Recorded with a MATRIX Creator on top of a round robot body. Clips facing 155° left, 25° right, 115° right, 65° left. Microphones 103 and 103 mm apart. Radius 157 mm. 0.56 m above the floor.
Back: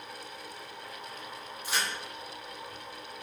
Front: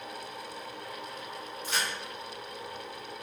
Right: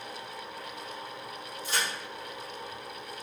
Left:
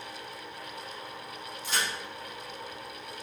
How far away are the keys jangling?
No keys jangling in this recording.